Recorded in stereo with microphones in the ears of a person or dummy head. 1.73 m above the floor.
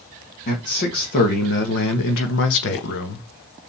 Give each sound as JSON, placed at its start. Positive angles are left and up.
{"t": 0.5, "sound": "a man speaking", "side_deg": 50, "distance_m": 1.9}